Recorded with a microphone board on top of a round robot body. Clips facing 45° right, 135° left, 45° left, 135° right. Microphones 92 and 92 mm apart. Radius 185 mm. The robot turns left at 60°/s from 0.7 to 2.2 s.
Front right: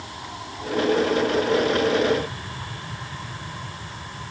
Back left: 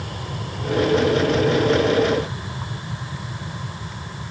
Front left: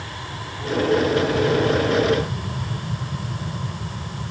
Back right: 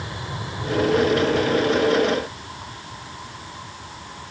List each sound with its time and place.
0.0 s an aircraft: 160° left; by 4.3 s 70° left